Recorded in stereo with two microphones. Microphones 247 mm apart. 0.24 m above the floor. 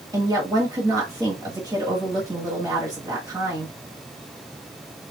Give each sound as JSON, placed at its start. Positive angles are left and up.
{"t": 0.1, "sound": "a woman speaking", "side_deg": -15, "distance_m": 1.4}